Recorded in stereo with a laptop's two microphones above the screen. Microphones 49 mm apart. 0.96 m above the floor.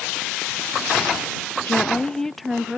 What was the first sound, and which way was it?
A woman speaking, 45° left (ahead or behind).